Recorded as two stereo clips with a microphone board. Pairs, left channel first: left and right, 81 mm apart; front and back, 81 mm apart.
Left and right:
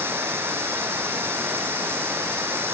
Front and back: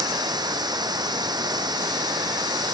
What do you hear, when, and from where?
0.0 s running water: 150° right